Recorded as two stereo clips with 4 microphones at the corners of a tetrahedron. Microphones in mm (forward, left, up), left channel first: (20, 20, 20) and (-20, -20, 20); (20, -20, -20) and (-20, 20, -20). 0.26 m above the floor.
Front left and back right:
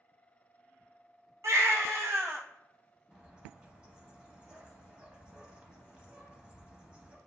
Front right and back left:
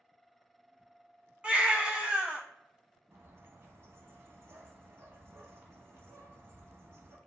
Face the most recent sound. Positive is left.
turn(degrees=155)